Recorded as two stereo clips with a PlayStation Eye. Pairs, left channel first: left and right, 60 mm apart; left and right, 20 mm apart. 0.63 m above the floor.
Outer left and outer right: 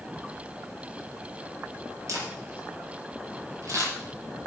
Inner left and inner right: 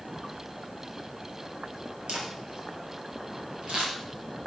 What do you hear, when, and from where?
2.1 s a camera shutter: 65° right (ahead or behind), 6 m